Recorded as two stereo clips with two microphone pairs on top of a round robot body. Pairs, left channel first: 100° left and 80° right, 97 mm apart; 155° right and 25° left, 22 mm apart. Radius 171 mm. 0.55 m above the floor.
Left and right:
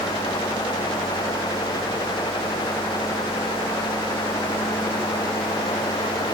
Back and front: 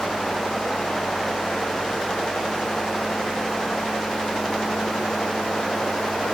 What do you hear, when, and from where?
Only background noise.